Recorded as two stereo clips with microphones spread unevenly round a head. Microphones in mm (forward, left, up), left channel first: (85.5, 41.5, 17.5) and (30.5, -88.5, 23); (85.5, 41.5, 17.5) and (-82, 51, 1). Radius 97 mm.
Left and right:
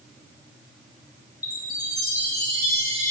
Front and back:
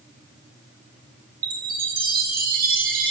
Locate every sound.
1.4 s a chime: 140° left, 1.2 m